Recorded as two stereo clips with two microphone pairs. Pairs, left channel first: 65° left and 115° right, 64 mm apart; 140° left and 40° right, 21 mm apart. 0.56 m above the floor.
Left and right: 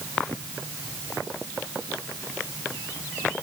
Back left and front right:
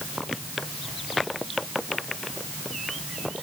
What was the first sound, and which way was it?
Only background noise.